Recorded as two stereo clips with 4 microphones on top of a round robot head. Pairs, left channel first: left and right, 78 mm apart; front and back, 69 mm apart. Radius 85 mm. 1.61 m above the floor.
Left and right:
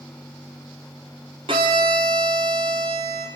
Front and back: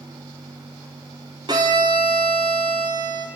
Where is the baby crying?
I don't hear a baby crying.